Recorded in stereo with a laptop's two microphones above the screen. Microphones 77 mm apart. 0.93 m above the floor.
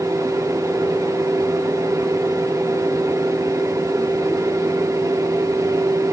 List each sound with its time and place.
0.0 s a fan: 45° right (ahead or behind), 2 m